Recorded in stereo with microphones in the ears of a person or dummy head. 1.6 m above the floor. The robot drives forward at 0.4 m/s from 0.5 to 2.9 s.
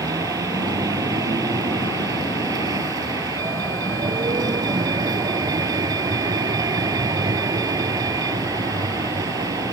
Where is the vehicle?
20° right (ahead or behind).